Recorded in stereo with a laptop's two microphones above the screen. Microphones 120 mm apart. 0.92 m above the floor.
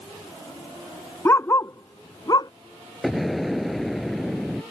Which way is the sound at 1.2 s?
25° left (ahead or behind).